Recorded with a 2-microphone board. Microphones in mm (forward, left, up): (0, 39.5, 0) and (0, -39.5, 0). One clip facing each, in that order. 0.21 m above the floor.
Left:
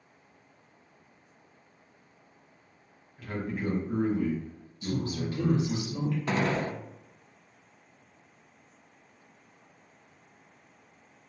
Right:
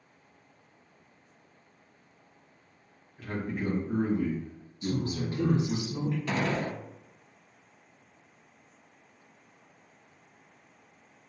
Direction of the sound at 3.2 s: Centre (ahead or behind).